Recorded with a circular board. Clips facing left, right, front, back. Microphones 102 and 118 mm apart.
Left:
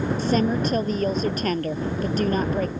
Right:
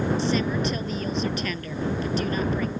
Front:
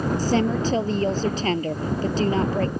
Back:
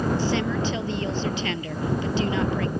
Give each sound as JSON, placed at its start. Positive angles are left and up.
{"t": 0.2, "sound": "a woman speaking", "azimuth_deg": 50}